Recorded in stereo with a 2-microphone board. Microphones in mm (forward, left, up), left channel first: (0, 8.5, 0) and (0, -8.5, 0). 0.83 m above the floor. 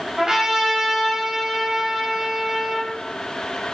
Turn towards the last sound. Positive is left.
turn(degrees=-25)  # may be behind; listen again after turning